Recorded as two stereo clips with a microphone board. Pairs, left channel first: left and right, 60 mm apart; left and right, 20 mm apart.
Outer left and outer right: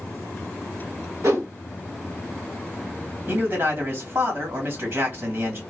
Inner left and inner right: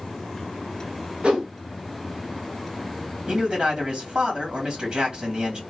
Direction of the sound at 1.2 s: 65° right (ahead or behind).